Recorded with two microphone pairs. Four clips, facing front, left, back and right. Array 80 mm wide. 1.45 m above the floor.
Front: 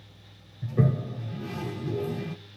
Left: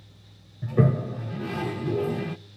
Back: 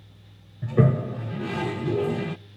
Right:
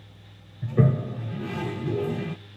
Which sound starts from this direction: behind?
A toilet flushing, at 0.6 s.